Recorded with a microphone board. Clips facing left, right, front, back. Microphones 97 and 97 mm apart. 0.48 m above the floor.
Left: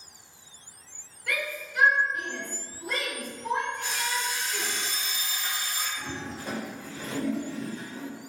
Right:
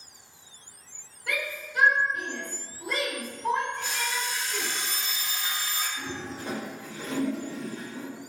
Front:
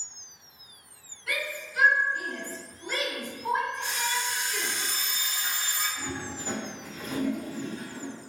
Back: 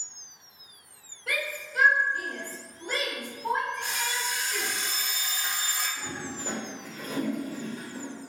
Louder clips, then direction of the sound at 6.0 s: Right 1 dB, front 1 dB; 150° right.